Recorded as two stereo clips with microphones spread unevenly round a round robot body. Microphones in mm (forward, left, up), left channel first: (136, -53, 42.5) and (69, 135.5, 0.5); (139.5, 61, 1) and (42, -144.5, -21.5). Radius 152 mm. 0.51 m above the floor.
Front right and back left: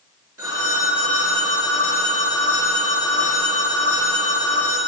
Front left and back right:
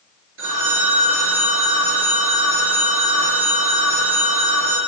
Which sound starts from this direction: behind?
A phone ringing, at 0.4 s.